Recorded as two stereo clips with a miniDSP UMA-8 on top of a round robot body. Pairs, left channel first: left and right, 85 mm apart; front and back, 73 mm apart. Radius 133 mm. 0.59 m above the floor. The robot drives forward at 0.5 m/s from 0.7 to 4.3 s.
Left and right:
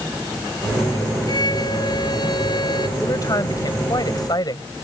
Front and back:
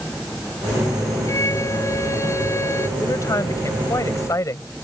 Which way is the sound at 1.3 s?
50° left.